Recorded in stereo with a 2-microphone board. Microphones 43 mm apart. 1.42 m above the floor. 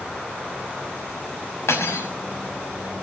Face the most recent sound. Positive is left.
turn(degrees=85)